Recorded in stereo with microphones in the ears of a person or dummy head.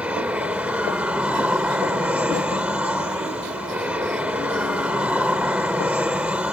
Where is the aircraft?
5° right (ahead or behind).